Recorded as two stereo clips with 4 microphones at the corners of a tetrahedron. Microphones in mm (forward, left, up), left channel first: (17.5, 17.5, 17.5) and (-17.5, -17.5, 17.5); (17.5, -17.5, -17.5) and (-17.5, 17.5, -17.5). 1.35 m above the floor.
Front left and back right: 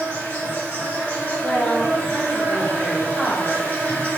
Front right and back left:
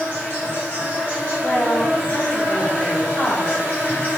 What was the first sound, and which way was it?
An insect, 15° left.